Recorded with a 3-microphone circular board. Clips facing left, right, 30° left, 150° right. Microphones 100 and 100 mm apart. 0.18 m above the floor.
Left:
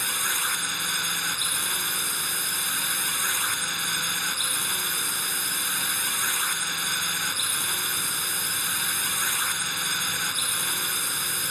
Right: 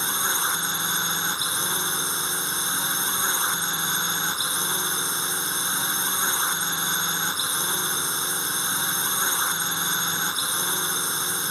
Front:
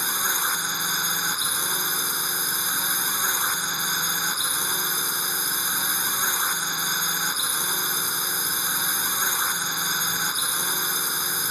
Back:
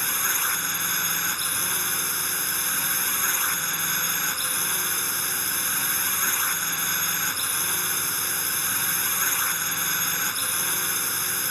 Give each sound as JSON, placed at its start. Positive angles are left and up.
{"t": 0.0, "sound": "a drone", "azimuth_deg": -40}